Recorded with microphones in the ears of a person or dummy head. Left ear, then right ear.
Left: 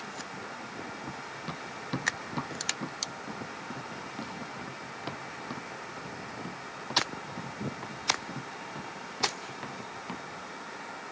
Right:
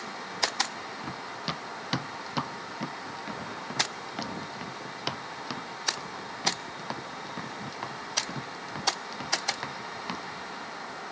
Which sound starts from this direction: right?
Running footsteps, at 1.0 s.